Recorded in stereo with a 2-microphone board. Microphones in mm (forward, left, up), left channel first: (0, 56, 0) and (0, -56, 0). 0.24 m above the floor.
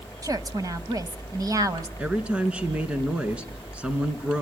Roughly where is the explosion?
No explosion in this recording.